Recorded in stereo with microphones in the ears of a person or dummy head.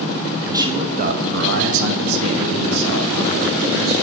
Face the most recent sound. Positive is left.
turn(degrees=-75)  # may be behind; listen again after turning